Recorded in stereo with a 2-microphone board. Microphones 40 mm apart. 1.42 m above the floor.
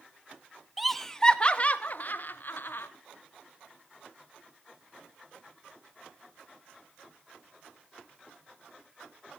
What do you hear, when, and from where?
0.8 s laughter: 5° right (ahead or behind), 0.9 m; by 2.9 s 60° left (ahead or behind), 1.6 m